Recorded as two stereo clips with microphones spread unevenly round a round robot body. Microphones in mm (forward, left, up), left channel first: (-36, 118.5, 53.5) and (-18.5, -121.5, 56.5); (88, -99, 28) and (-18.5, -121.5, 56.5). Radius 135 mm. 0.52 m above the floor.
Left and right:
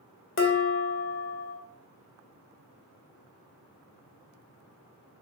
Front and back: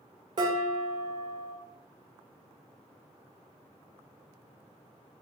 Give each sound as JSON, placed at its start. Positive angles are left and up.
{"t": 0.4, "sound": "dishes clattering", "azimuth_deg": 125, "distance_m": 0.8}